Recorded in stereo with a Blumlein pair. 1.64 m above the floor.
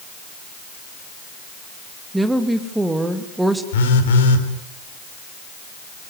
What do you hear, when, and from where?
2.1 s a woman speaking: 5° right, 2.5 m
3.7 s a phone buzzing: 60° left, 3.5 m